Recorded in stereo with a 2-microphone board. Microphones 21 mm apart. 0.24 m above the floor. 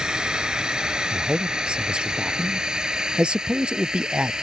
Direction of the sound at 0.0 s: 40° right (ahead or behind).